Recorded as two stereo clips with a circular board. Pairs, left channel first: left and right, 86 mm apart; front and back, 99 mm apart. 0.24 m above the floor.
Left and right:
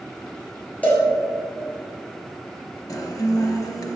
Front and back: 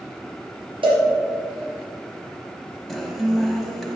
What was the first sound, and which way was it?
A cowbell, 165° left.